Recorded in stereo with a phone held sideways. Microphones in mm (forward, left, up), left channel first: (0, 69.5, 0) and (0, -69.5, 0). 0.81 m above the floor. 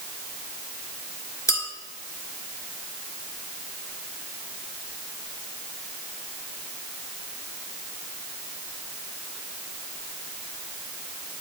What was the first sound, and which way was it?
A clink, 20° left (ahead or behind).